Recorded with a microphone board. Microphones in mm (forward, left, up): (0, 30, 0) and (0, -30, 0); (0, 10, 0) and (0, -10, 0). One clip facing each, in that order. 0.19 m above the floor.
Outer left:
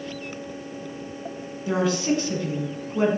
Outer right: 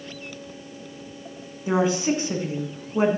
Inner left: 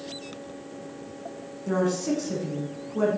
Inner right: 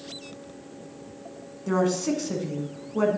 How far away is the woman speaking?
About 1.3 m.